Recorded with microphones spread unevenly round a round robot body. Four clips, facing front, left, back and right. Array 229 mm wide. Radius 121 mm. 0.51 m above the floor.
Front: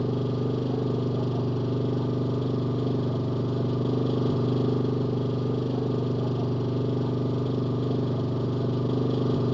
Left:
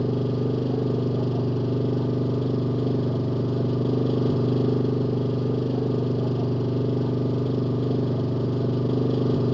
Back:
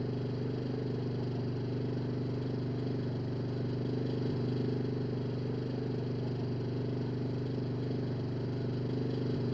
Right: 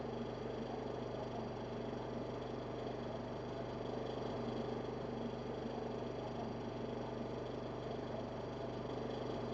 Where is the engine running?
65° left.